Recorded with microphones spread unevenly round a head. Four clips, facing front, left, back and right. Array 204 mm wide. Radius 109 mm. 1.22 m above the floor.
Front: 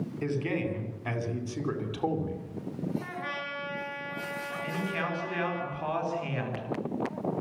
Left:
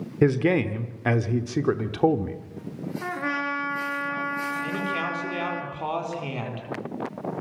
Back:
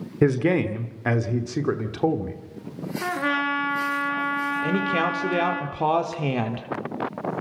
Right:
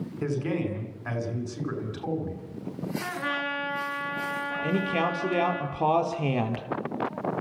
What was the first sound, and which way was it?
A man speaking, 140° left.